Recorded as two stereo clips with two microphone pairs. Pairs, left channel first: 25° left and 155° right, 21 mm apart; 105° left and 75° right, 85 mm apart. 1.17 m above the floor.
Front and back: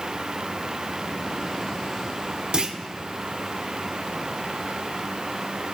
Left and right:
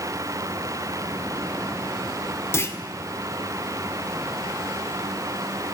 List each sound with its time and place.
2.5 s a clunk: 160° left, 1.2 m